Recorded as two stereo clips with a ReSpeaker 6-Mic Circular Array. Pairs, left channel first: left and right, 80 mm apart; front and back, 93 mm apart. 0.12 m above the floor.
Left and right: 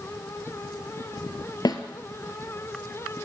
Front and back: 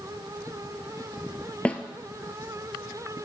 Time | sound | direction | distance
1.6 | a snare drum | 75° left | 0.7 m